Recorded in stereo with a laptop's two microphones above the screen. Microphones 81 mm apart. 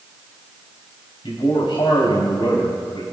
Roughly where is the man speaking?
Left.